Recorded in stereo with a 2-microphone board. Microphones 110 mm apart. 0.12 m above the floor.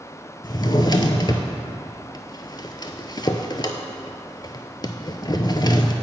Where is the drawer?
40° left (ahead or behind), 0.6 m.